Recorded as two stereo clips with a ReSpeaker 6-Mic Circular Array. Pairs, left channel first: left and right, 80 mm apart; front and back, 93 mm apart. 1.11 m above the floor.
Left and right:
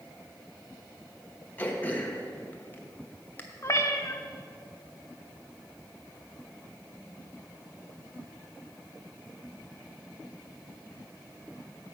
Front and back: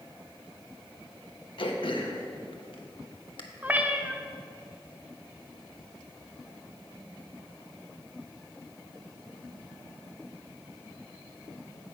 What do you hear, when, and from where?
1.6 s throat clearing: 20° left, 1.1 m
3.6 s a cat meowing: 115° left, 0.7 m